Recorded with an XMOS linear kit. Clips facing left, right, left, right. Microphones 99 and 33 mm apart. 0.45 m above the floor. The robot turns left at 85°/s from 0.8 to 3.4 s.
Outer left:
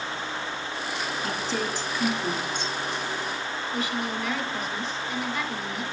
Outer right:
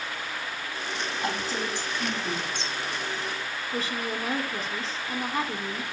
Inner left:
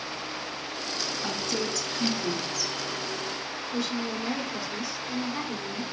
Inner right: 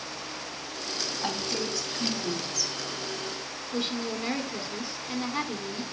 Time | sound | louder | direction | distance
1.2 | a woman speaking | even, even | 65° right (ahead or behind) | 4 m
3.7 | a woman speaking | outer left 1 dB, even | 35° right (ahead or behind) | 1.4 m